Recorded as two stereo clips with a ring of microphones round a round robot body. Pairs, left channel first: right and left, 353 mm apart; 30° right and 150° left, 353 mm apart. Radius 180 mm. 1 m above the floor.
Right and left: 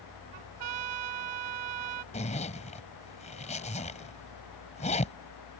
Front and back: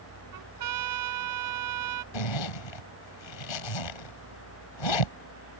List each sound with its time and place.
0.3 s a trumpet: 110° left
2.1 s a zipper: 20° right